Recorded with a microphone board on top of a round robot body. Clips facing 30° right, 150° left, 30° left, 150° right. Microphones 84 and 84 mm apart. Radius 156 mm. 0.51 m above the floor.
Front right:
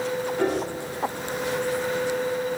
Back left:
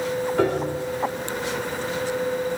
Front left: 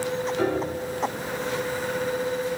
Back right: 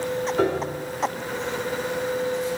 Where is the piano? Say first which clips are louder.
Back left 3 dB, back right 2 dB; 175° left, 2 m.